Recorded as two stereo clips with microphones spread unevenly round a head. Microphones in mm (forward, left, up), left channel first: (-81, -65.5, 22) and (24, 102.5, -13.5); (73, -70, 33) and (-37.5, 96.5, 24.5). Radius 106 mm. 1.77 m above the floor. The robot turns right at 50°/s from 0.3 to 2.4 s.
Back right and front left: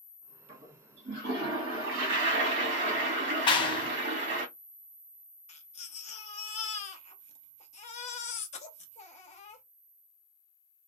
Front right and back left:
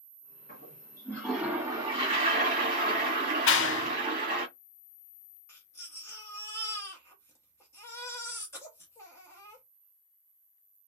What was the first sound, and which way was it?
A toilet flushing, 10° right.